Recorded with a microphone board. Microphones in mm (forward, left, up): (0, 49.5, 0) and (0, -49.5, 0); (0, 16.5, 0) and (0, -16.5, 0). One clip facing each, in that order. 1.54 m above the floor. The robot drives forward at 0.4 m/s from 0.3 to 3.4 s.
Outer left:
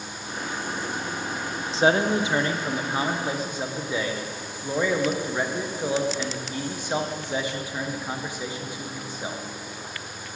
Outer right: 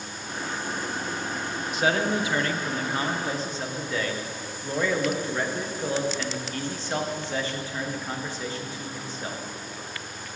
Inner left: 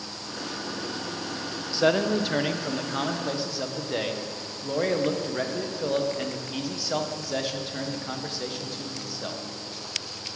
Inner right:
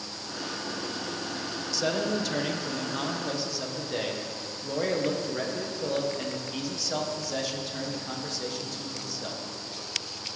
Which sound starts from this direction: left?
A man speaking, at 1.7 s.